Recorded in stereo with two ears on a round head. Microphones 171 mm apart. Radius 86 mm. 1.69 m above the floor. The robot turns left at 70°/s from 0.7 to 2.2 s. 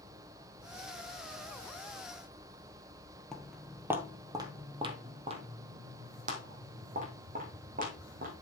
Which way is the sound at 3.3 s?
Centre (ahead or behind).